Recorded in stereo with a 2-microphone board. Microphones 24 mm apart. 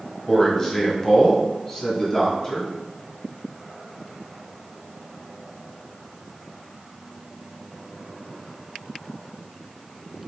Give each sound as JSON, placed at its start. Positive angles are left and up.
{"t": 0.3, "sound": "a man speaking", "side_deg": 15, "distance_m": 1.1}